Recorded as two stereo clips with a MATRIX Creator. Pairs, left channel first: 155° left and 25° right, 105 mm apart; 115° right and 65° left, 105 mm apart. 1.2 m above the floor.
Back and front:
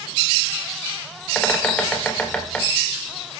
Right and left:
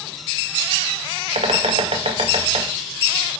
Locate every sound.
1.4 s a bird: 75° left, 1.7 m